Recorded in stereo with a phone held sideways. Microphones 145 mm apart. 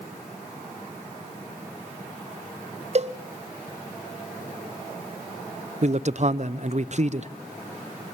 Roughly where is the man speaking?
Right.